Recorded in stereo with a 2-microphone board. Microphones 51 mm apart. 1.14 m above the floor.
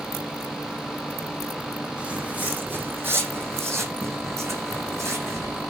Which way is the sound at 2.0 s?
25° right (ahead or behind).